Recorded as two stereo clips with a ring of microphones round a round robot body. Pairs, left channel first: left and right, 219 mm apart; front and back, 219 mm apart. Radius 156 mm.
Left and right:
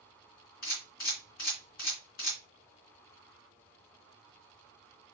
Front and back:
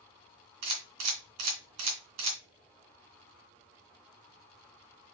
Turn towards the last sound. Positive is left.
turn(degrees=155)